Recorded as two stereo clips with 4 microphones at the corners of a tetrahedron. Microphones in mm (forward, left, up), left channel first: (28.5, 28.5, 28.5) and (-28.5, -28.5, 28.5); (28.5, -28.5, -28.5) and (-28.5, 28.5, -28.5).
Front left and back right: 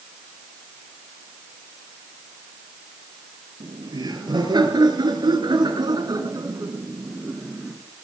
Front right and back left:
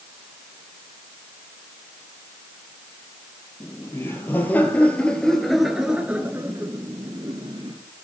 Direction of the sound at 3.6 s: 105° right.